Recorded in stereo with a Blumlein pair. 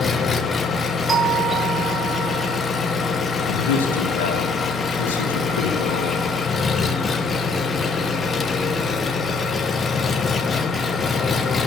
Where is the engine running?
15° left, 1.0 m.